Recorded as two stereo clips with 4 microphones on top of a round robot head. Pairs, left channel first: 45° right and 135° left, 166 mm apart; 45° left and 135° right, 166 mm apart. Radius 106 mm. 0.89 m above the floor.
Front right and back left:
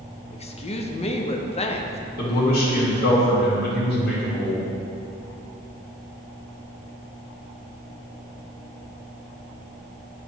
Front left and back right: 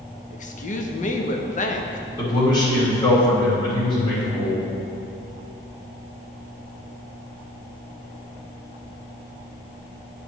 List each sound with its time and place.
0.3 s a woman speaking: 5° left, 0.8 m
2.2 s a man speaking: 20° right, 2 m